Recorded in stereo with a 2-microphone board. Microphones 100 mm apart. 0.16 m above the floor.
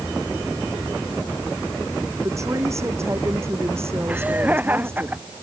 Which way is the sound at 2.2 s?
30° right (ahead or behind).